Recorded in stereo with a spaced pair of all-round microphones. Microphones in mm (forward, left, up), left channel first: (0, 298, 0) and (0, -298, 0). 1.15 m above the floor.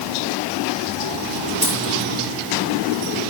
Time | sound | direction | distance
1.6 | a dropped coin | 10° right (ahead or behind) | 7.5 m